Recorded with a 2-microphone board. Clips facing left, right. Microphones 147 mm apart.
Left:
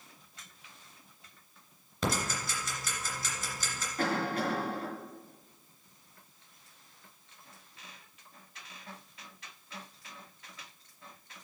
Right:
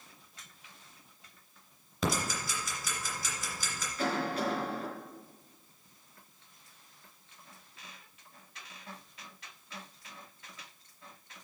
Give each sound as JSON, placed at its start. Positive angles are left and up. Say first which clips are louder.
{"t": 2.0, "sound": "ticking", "louder": "even", "side_deg": 0, "distance_m": 3.0}
{"t": 4.0, "sound": "a cough", "louder": "left 1 dB", "side_deg": 55, "distance_m": 2.5}